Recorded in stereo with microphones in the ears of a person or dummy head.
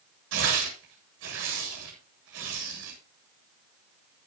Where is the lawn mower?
I don't hear a lawn mower.